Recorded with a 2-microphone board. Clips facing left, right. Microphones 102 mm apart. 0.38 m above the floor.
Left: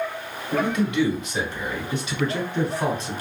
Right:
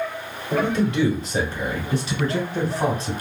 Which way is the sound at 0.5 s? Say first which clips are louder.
Right 1 dB; 35° right (ahead or behind).